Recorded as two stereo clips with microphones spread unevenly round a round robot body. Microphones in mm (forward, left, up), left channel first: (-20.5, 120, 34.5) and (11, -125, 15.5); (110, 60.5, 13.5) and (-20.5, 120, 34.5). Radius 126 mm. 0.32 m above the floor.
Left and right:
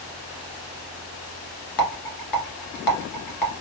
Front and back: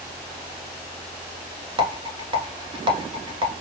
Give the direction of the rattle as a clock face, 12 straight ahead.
9 o'clock.